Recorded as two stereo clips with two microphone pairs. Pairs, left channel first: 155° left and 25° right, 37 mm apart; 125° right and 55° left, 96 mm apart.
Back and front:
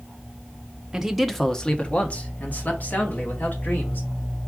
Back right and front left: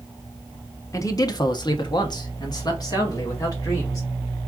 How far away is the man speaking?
About 0.7 m.